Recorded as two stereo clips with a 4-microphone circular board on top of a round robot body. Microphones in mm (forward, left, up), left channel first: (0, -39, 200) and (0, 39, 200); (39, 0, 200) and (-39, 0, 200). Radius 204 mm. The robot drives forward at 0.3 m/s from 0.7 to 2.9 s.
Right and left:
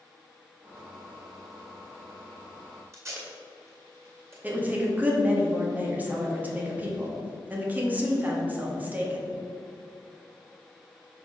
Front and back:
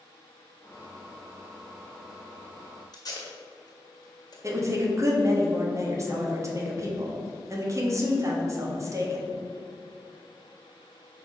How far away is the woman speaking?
About 1.6 m.